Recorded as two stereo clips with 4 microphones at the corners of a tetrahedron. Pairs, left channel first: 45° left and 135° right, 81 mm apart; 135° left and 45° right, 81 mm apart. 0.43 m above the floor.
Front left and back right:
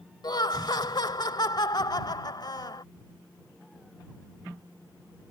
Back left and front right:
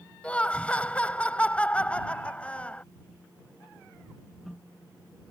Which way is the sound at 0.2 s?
60° left.